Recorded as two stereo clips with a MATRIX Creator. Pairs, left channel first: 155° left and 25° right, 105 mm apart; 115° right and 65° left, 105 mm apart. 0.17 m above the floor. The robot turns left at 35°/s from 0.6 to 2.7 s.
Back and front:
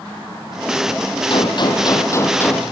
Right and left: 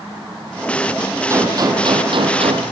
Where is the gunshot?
125° left, 3.5 m; by 2.6 s 80° left, 3.5 m.